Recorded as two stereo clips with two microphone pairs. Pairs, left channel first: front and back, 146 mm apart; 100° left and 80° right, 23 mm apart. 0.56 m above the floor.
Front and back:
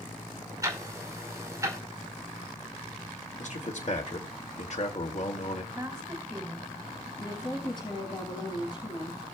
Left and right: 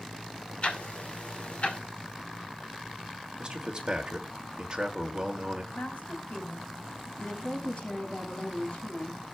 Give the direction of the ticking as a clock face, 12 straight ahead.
8 o'clock.